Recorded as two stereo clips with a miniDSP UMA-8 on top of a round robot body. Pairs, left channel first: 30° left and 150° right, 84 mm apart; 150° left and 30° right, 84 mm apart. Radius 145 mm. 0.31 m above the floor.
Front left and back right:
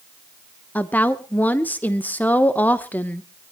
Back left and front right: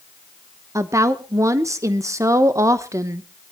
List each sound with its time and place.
0.8 s a woman speaking: 25° right, 1.2 m